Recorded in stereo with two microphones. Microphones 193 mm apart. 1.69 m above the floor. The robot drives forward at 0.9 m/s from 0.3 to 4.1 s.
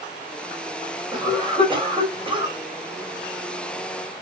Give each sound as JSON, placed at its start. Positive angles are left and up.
{"t": 1.1, "sound": "a cough", "side_deg": -25, "distance_m": 6.0}